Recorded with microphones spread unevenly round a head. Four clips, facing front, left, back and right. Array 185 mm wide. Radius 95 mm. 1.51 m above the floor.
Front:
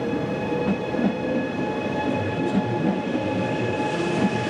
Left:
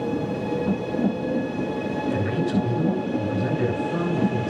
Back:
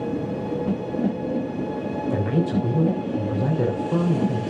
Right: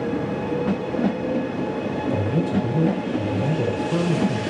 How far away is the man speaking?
About 7 m.